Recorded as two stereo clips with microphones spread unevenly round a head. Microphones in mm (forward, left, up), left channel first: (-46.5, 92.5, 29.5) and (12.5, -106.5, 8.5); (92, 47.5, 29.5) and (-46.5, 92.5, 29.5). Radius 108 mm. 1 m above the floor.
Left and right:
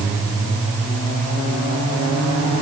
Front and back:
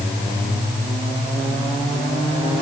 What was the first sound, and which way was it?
Only background noise.